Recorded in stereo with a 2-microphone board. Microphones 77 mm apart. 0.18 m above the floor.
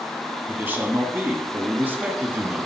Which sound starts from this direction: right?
A man speaking, at 0.5 s.